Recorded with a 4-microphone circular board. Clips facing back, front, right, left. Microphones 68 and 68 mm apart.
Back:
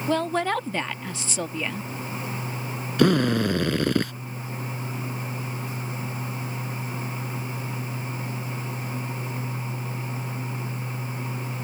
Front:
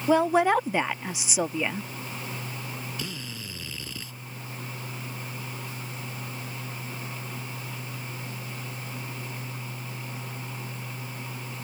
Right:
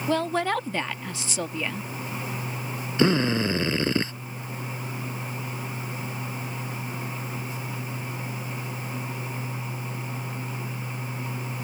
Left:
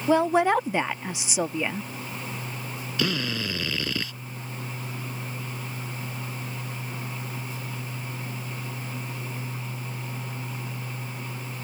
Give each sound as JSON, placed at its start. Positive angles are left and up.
{"t": 0.1, "sound": "a woman speaking", "azimuth_deg": 50}
{"t": 3.0, "sound": "a drill", "azimuth_deg": -150}